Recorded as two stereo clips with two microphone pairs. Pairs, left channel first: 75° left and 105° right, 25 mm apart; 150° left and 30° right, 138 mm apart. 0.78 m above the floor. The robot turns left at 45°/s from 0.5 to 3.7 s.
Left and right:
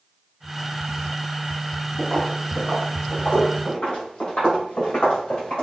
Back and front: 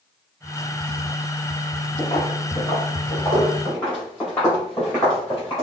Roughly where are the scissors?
I don't hear scissors.